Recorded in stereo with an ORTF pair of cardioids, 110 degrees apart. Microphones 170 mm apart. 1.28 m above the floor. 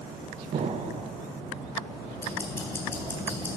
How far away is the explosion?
About 0.6 m.